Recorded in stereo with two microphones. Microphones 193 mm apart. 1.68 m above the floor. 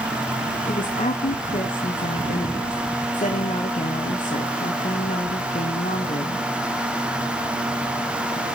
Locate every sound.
0.7 s a woman speaking: 40° left (ahead or behind), 1.2 m